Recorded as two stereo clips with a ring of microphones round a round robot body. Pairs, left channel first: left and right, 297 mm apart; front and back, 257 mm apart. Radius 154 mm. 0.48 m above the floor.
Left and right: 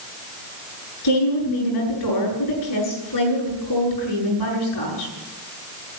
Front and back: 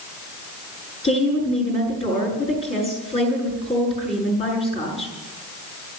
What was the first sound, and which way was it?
A woman speaking, 70° left.